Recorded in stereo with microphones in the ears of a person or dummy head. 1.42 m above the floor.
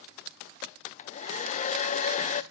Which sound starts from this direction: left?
A hair dryer, at 0.9 s.